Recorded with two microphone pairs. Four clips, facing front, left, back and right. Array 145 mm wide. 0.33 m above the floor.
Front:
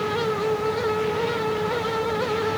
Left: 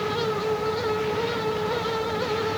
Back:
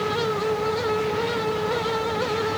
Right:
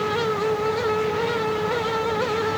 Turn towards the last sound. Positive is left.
No sound to turn to.